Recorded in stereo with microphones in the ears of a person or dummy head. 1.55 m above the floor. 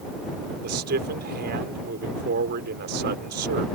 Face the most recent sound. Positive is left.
turn(degrees=-55)  # may be behind; listen again after turning